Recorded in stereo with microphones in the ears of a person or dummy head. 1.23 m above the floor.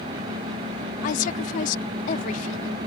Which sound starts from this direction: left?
A woman speaking, at 1.0 s.